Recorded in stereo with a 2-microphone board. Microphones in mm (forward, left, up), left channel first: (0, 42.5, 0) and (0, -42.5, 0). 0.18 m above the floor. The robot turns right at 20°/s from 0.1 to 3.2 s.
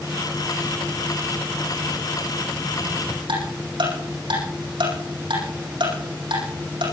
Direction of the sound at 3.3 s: 75° right (ahead or behind).